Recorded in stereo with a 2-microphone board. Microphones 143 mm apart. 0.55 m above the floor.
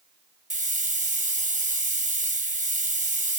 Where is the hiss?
60° right (ahead or behind), 3.5 m.